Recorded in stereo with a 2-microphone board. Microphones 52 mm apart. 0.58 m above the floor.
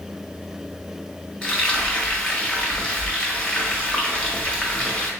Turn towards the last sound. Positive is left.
turn(degrees=20)  # may be behind; listen again after turning